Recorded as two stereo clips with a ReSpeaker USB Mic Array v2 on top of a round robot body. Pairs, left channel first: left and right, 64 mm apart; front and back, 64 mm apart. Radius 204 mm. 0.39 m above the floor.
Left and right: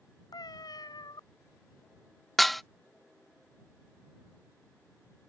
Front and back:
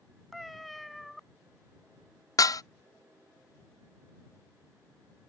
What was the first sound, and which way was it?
A cat meowing, 90° left.